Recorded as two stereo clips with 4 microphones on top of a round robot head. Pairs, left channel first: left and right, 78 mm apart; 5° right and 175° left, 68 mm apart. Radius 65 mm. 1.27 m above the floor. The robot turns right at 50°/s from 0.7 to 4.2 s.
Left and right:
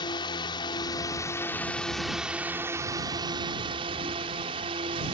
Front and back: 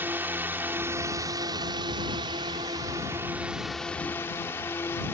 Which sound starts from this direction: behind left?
A drone, at 0.0 s.